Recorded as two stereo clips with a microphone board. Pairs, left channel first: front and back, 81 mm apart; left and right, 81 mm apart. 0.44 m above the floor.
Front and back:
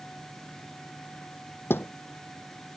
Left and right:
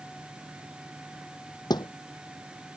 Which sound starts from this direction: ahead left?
A thud, at 1.7 s.